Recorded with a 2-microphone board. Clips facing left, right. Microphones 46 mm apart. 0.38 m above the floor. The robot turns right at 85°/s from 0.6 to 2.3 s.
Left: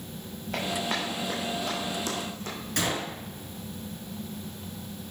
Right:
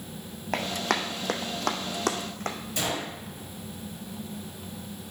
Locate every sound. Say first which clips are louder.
0.5 s running footsteps: right 2 dB; 65° right (ahead or behind), 1.5 m; by 2.6 s 50° right (ahead or behind), 1.4 m
2.8 s a gunshot: left 3 dB; 55° left (ahead or behind), 2.5 m